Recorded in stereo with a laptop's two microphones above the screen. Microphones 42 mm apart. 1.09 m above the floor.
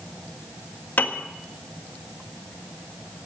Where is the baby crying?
I don't hear a baby crying.